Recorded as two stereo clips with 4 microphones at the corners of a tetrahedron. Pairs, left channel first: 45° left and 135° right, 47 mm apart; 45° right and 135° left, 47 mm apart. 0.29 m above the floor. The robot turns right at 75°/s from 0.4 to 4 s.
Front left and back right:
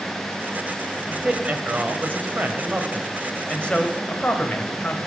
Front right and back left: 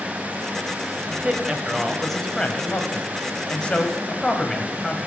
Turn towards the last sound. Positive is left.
turn(degrees=20)